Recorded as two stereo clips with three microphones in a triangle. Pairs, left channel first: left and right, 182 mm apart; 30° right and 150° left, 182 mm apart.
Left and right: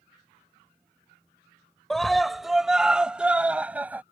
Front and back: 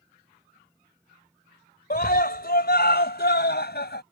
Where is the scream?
Straight ahead; by 4.0 s 10° right.